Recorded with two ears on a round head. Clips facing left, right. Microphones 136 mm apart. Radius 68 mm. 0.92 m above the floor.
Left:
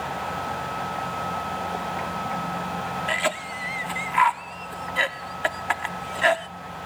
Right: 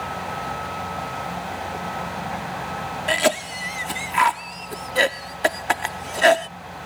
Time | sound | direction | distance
3.1 | a cough | 50° right (ahead or behind) | ?